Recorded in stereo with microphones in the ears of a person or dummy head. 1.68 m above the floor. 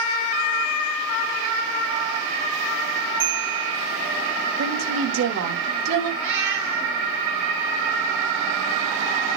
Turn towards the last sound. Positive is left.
turn(degrees=-15)  # may be behind; listen again after turning